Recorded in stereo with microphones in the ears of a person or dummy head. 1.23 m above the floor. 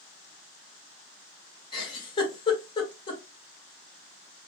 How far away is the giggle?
About 1.9 m.